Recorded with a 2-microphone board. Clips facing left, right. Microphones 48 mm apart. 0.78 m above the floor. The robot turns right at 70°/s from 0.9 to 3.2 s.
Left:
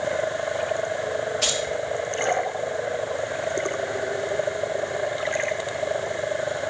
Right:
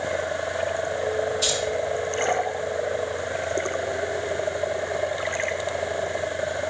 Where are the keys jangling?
70° left (ahead or behind), 5 m; by 1.6 s 80° left, 5 m.